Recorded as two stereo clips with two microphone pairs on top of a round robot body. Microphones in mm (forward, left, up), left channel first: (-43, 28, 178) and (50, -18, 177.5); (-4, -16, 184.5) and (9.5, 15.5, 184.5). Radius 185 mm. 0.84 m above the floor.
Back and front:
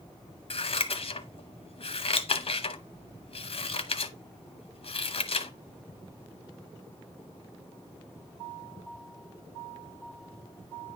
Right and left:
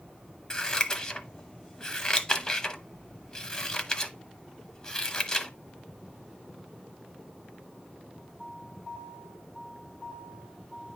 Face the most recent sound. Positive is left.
turn(degrees=-175)